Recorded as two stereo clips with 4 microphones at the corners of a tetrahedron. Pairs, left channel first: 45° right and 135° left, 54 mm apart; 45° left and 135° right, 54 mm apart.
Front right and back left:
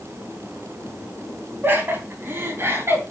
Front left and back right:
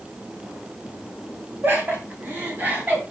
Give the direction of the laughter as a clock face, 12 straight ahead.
6 o'clock.